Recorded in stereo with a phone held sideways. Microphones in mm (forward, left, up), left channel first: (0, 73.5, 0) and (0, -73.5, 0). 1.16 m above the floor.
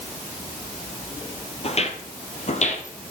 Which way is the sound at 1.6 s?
45° left (ahead or behind).